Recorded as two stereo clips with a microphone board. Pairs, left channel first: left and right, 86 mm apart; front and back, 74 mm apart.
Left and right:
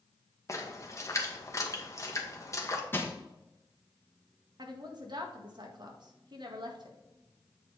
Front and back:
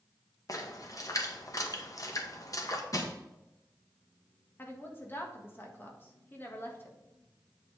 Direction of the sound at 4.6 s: 60° right.